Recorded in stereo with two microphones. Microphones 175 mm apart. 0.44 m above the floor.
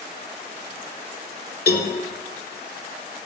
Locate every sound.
1.7 s a cowbell: 60° left (ahead or behind), 1.0 m